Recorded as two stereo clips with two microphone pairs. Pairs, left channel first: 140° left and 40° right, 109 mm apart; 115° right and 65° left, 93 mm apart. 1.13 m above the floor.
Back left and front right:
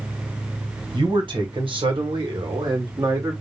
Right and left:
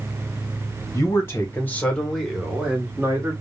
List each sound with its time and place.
0.9 s a man speaking: 70° right, 1.2 m; by 3.3 s 10° left, 1.1 m